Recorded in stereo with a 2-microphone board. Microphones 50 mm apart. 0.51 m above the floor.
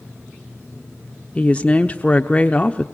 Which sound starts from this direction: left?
A woman speaking, at 1.4 s.